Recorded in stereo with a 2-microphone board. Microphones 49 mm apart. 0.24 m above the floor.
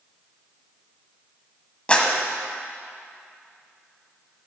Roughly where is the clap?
Left.